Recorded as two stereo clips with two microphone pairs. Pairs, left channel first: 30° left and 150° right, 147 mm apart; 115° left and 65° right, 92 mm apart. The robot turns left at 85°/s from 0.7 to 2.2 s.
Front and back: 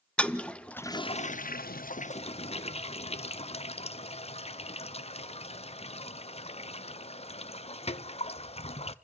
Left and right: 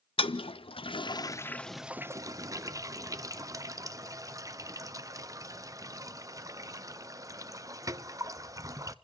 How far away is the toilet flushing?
About 0.7 m.